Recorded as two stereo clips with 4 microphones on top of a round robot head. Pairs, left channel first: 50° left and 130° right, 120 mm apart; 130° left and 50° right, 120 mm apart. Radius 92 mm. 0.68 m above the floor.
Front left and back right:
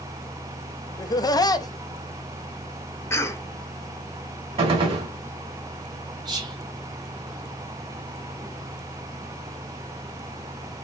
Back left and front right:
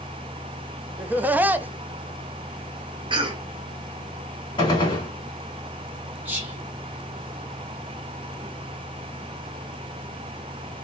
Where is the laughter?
20° left, 0.6 m.